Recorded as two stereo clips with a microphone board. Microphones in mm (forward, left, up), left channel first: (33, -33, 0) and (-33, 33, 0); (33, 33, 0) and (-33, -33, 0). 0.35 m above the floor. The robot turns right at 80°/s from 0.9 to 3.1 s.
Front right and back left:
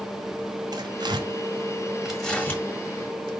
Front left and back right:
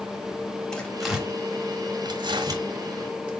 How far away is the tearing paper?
About 1.7 m.